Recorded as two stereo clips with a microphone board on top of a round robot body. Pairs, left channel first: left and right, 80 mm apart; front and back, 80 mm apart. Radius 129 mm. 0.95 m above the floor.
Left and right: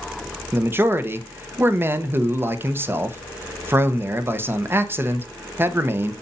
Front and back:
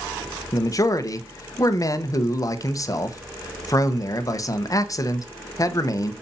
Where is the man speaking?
35° right, 1.1 m.